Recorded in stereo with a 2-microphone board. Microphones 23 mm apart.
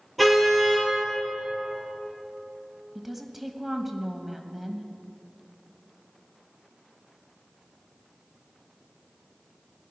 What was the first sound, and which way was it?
A car horn, 5° left (ahead or behind).